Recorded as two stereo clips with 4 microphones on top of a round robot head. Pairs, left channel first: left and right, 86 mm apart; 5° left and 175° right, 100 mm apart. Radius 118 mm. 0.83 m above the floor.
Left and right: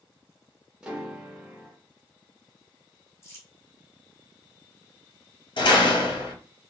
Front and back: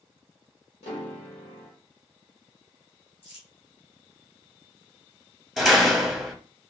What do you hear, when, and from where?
0.8 s a piano: 10° right, 0.7 m
3.2 s crumpling: 30° left, 1.6 m
5.6 s a door slam: 95° left, 1.0 m